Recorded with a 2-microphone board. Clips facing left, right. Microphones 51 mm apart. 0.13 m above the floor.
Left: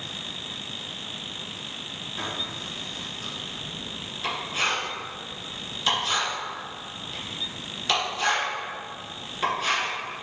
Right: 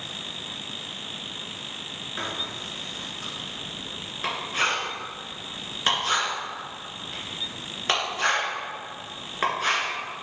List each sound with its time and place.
2.2 s writing: 45° right (ahead or behind), 2 m